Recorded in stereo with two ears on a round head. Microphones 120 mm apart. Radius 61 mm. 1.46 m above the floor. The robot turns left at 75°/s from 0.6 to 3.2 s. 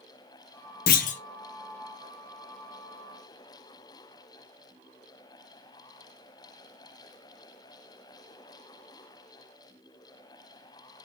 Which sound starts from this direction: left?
A clunk, at 0.9 s.